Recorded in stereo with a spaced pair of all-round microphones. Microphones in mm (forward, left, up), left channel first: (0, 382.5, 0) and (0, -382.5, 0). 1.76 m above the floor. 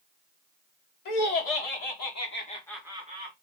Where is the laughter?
65° left (ahead or behind), 1.0 m; by 3.3 s 15° right (ahead or behind), 1.1 m.